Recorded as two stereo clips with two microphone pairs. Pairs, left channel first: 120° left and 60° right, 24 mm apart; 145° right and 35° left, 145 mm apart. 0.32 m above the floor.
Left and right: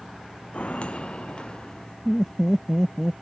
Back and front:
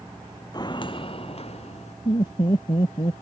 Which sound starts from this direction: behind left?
Footsteps, at 0.5 s.